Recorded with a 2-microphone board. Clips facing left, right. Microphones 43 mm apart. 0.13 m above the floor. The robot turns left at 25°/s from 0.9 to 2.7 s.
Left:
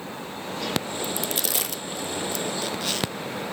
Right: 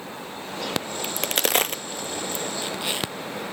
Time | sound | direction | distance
1.0 | a crack | 55° right (ahead or behind) | 0.6 m